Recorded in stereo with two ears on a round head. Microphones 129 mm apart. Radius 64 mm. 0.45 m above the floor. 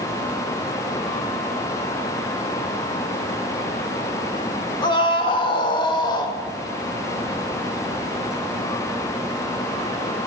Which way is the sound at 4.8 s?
30° left (ahead or behind).